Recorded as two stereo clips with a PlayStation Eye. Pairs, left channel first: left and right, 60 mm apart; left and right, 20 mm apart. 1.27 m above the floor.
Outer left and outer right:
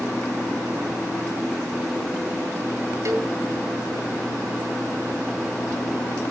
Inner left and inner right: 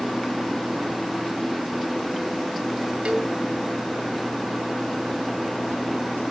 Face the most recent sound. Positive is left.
turn(degrees=-60)  # may be behind; listen again after turning